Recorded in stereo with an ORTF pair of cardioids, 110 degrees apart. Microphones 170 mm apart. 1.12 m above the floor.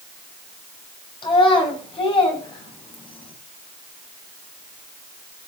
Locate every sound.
1.2 s a child speaking: 30° left, 5 m